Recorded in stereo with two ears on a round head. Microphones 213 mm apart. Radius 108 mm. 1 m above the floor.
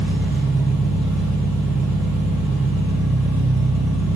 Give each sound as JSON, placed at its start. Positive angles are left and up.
{"t": 0.0, "sound": "an engine running", "side_deg": -10, "distance_m": 0.9}